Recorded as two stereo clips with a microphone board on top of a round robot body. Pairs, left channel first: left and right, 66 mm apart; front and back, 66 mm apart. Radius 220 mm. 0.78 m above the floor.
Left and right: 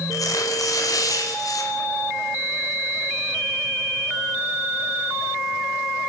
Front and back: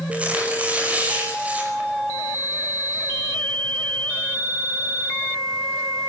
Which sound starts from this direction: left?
Tearing paper, at 0.1 s.